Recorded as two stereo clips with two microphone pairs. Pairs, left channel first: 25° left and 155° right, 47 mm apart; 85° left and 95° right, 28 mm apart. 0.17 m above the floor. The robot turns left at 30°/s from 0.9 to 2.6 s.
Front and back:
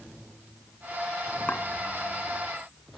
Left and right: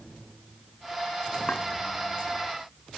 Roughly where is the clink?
Ahead left.